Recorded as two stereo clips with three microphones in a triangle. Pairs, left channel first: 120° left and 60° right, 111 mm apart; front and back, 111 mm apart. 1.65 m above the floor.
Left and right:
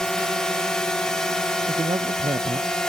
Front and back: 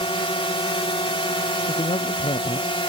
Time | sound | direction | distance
0.0 | a drone | 35° left | ?
1.7 | a man speaking | 15° right | ?